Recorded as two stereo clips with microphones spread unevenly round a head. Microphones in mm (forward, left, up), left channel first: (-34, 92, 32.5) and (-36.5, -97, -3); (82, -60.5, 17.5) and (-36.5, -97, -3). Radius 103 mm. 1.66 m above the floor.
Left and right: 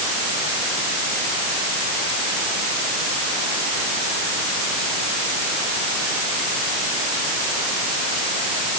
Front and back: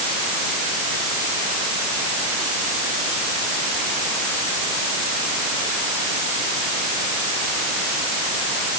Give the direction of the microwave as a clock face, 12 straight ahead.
No microwave in this recording.